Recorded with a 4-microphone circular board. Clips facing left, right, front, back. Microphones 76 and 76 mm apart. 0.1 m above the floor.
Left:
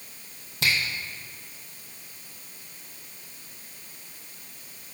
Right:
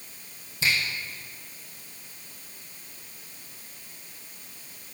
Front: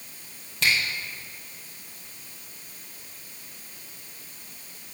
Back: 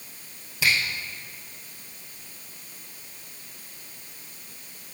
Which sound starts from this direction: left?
A finger snap, at 0.6 s.